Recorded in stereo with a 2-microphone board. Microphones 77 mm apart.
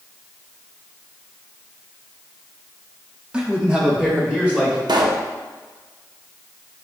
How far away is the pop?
About 0.5 m.